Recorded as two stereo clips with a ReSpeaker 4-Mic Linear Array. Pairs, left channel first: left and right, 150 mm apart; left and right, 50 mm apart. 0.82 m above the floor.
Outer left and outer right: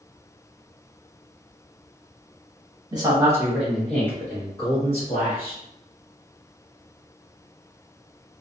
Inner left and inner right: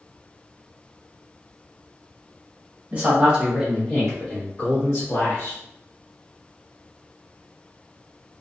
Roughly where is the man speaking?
Right.